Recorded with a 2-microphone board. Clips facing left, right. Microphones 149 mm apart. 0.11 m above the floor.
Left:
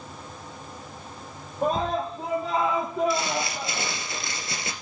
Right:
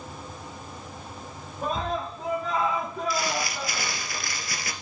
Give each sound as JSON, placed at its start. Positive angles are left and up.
{"t": 1.6, "sound": "a scream", "side_deg": 40, "distance_m": 4.5}
{"t": 3.1, "sound": "crumpling", "side_deg": 25, "distance_m": 2.0}